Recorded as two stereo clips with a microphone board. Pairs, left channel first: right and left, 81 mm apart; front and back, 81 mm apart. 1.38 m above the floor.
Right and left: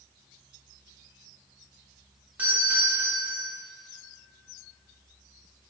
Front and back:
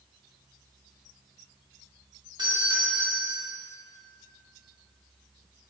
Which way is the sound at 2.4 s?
160° left.